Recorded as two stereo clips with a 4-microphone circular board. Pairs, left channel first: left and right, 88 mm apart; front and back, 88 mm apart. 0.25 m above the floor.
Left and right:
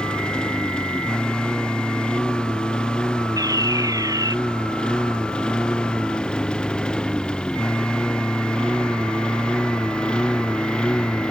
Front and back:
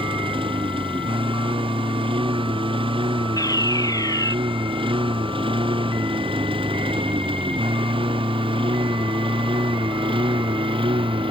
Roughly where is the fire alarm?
Ahead right.